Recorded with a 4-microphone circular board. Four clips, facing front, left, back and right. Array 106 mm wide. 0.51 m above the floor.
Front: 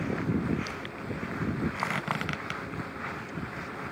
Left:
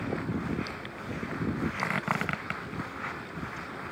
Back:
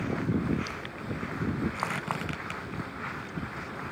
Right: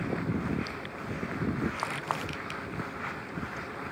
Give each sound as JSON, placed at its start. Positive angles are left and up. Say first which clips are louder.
{"t": 1.8, "sound": "a squeak", "louder": "left 2 dB, front 1 dB", "azimuth_deg": 75, "distance_m": 0.9}